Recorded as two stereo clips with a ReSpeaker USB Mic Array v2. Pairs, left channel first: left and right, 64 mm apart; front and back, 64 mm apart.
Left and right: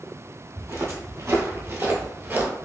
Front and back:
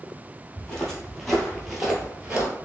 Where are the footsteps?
70° right, 1.7 m; by 2.5 s 125° right, 1.2 m.